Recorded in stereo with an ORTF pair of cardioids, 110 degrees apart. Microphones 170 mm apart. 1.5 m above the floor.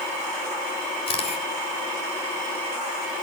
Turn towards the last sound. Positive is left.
turn(degrees=40)